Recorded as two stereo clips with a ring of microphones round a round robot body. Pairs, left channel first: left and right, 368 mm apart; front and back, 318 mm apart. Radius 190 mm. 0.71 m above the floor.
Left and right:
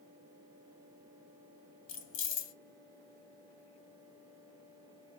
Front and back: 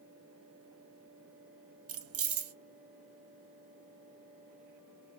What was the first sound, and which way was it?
Keys jangling, 140° left.